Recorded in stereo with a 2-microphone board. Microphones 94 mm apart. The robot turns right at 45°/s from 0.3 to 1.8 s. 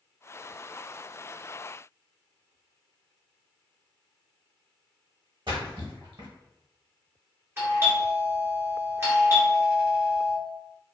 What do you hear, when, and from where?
5.5 s a splash: 70° right (ahead or behind), 0.8 m
7.6 s a doorbell: 25° right (ahead or behind), 1.2 m